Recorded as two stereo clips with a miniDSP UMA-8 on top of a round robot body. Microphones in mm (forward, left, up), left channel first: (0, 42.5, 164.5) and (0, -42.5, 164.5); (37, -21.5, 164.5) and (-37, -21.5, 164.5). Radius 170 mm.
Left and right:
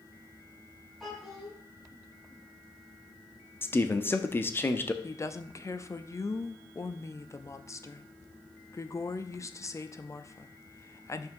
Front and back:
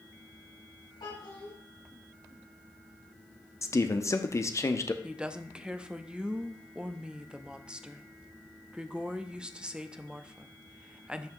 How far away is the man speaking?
About 1.0 m.